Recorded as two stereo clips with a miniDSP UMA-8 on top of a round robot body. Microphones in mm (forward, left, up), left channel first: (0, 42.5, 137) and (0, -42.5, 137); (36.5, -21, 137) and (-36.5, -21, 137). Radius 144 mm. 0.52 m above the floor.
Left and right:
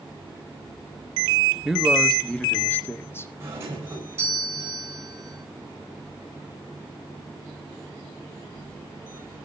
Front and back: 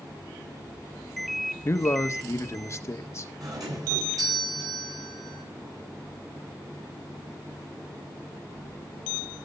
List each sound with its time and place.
1.6 s a man speaking: 10° right, 1.2 m; by 3.3 s 40° left, 1.6 m
3.4 s a doorbell: 150° right, 10 m